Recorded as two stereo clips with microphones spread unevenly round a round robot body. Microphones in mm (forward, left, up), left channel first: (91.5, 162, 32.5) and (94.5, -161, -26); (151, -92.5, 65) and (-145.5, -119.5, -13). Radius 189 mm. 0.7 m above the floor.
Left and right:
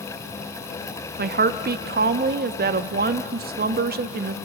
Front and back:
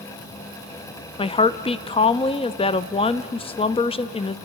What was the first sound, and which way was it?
A woman speaking, 80° right.